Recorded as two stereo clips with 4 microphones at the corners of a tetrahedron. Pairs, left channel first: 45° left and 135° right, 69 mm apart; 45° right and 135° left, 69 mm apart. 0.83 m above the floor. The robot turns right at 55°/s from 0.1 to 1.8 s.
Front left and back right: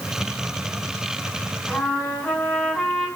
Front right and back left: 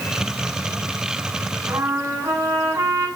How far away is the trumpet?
About 6.5 m.